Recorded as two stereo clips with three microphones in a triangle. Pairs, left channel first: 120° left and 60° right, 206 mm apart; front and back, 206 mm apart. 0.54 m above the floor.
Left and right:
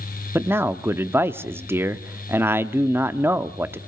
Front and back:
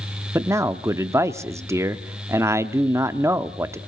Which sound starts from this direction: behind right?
A man speaking, at 0.3 s.